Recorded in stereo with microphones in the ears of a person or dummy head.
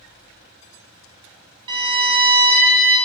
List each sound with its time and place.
1.7 s a violin: 25° right (ahead or behind), 0.5 m